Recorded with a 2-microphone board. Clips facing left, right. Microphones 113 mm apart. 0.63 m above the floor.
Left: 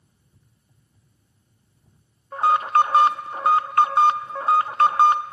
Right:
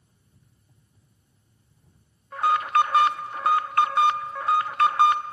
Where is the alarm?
30° left (ahead or behind), 0.7 m.